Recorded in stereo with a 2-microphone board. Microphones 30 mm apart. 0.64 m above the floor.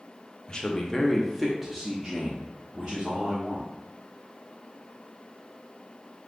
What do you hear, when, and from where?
0.5 s a man speaking: 30° left (ahead or behind), 0.7 m; by 3.7 s 25° right (ahead or behind), 1.7 m